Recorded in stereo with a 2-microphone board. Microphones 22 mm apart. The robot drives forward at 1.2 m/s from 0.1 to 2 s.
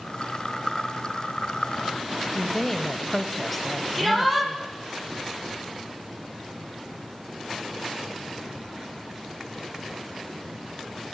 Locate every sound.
2.3 s a woman speaking: 10° left (ahead or behind), 1.2 m
4.0 s a shout: centre (ahead or behind), 9 m